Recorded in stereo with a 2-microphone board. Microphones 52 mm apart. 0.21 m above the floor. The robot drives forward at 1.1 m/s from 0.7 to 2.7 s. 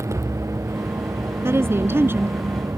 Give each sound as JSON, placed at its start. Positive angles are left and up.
{"t": 0.0, "sound": "a vehicle", "side_deg": -75}
{"t": 1.4, "sound": "a woman speaking", "side_deg": -55}